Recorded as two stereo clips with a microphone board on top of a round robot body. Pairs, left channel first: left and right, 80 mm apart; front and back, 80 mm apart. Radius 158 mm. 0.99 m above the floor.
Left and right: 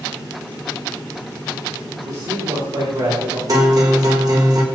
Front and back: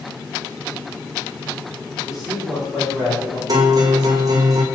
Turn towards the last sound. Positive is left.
turn(degrees=-135)